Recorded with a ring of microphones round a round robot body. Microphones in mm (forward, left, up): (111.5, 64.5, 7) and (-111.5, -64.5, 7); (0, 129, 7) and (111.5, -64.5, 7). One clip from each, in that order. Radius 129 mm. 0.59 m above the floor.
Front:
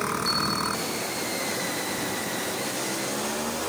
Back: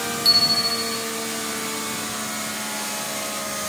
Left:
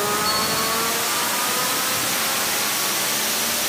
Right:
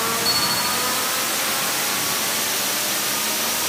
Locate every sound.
0.2 s a bicycle bell: 140° right